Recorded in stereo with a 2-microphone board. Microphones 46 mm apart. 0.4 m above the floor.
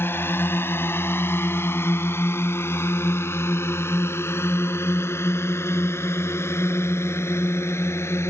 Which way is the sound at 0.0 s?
55° left (ahead or behind).